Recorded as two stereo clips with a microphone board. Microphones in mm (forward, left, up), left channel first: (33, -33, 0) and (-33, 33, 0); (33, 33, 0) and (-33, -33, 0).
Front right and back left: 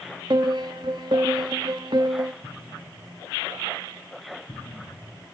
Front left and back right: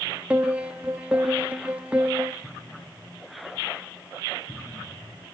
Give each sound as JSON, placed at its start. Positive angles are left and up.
{"t": 0.3, "sound": "a piano", "azimuth_deg": 150, "distance_m": 1.3}
{"t": 2.4, "sound": "an explosion", "azimuth_deg": 0, "distance_m": 10.0}